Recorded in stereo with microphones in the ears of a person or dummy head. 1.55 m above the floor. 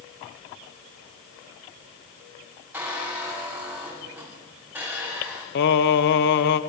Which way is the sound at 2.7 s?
10° right (ahead or behind).